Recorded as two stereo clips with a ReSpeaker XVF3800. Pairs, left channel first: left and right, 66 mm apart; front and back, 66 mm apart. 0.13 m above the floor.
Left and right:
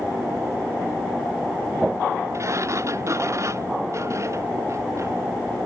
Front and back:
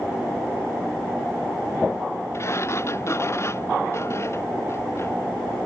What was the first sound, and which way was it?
A sliding door, 45° right.